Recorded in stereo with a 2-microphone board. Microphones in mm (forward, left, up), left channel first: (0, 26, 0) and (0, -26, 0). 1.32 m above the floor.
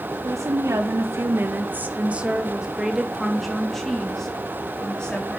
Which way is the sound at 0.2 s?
80° right.